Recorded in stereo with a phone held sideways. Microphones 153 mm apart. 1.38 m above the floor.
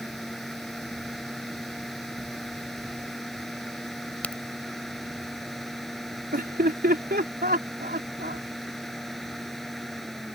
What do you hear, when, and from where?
0.0 s a fan: centre (ahead or behind)
4.2 s a crack: 10° left (ahead or behind)
6.3 s laughter: 85° right